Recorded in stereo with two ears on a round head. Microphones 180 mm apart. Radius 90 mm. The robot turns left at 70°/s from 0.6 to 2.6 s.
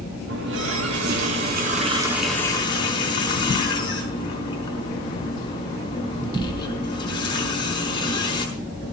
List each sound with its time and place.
0.3 s a running tap: 65° right, 5 m; by 8.4 s 155° left, 5 m